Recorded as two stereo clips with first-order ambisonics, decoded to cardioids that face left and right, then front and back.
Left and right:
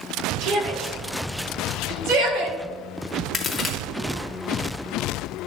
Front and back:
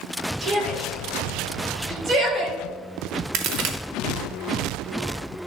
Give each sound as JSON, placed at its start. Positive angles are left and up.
{"t": 0.4, "sound": "a shout", "azimuth_deg": -120, "distance_m": 2.5}
{"t": 3.3, "sound": "a crack", "azimuth_deg": 165, "distance_m": 1.1}